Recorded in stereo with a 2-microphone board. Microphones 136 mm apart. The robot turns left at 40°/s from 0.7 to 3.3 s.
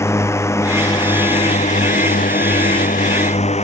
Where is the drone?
20° left (ahead or behind); by 3.6 s 55° left (ahead or behind).